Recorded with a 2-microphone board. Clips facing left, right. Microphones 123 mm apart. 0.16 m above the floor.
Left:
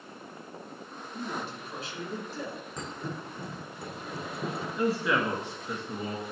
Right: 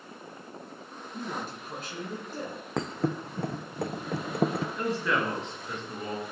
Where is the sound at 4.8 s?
10° left (ahead or behind), 1.8 m.